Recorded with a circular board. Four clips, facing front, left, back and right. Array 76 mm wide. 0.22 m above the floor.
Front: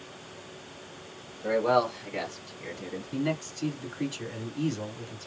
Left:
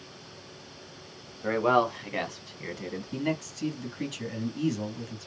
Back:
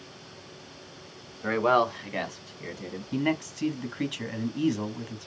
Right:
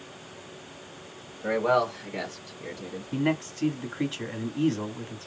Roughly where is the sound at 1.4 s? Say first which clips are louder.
Even, back 1 dB; behind.